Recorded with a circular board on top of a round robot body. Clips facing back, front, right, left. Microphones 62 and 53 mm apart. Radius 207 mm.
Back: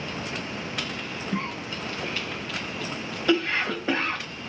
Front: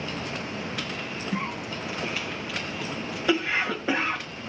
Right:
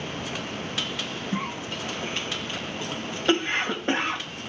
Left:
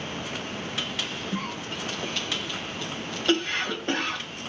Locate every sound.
1.3 s a cough: 75° right, 1.0 m